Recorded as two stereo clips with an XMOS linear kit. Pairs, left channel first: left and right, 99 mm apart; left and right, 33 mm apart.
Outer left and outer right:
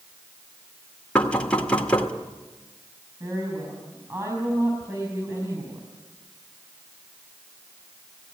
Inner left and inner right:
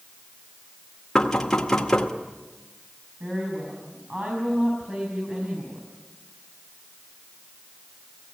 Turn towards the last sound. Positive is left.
turn(degrees=-35)  # may be behind; listen again after turning